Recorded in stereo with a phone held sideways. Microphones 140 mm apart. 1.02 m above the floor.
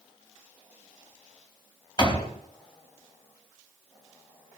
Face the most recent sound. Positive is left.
turn(degrees=35)  # may be behind; listen again after turning